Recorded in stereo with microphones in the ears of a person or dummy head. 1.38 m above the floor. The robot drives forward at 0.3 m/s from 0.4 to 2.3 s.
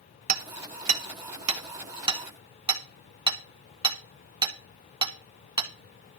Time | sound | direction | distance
0.3 | hammering | 50° right (ahead or behind) | 0.9 m